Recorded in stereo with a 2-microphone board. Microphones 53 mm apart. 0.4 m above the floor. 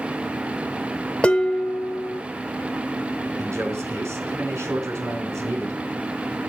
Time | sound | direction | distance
1.2 | dishes clattering | 20° left (ahead or behind) | 0.8 m
3.4 | a man speaking | 65° right (ahead or behind) | 3.5 m